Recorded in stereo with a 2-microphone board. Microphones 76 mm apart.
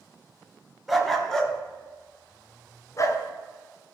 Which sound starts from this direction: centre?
A dog barking, at 0.9 s.